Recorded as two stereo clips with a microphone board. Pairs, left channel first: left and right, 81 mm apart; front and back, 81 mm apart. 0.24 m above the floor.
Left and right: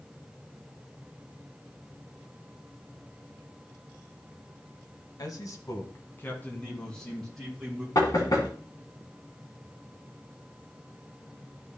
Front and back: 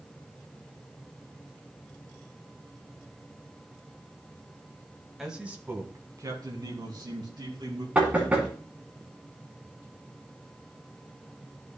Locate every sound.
5.2 s a man speaking: 95° left, 1.4 m; by 7.8 s straight behind, 3 m
8.0 s knocking: 110° left, 2 m